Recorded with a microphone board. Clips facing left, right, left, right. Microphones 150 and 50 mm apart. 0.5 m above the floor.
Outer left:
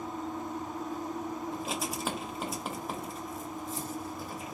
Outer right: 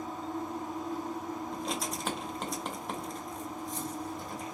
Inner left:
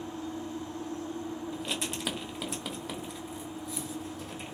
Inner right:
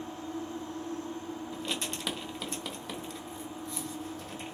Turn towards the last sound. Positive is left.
turn(degrees=5)  # may be behind; listen again after turning